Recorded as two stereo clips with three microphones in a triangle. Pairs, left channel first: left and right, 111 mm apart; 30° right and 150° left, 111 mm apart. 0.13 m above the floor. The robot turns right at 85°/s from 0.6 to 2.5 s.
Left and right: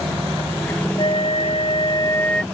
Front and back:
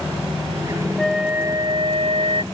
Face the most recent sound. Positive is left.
turn(degrees=180)